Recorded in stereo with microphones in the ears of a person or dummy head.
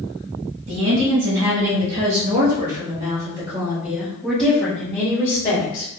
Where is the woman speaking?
75° right (ahead or behind), 1.7 m; by 5.9 s 35° left (ahead or behind), 1.5 m.